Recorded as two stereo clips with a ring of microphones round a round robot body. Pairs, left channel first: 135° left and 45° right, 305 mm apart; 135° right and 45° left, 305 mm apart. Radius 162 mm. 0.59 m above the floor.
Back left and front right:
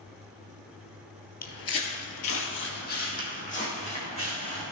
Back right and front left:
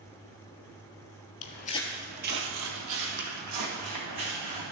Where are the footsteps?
170° right, 0.9 m; by 4.6 s 65° left, 3.5 m.